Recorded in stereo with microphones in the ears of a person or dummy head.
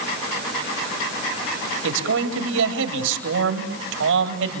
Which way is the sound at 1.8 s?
80° right.